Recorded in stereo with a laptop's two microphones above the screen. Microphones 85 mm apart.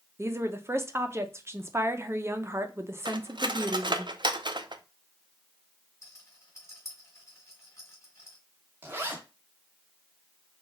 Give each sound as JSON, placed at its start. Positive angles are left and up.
{"t": 0.2, "sound": "a woman speaking", "side_deg": -30, "distance_m": 0.6}
{"t": 3.0, "sound": "cutlery clinking", "side_deg": -70, "distance_m": 0.5}
{"t": 6.0, "sound": "a rattle", "side_deg": 35, "distance_m": 2.0}
{"t": 8.8, "sound": "a zipper", "side_deg": -25, "distance_m": 1.3}